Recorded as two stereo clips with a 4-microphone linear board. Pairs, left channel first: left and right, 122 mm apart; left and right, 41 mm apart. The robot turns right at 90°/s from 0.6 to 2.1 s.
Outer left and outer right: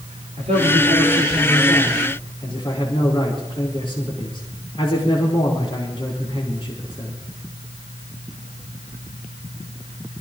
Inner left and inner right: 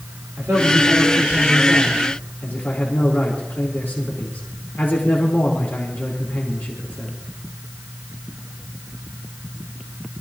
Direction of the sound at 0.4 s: 90° right.